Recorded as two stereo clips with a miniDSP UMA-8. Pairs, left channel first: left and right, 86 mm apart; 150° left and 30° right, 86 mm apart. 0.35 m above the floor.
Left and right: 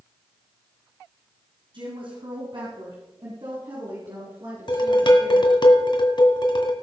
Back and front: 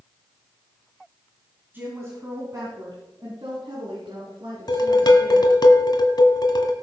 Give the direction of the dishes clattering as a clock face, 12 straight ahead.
8 o'clock.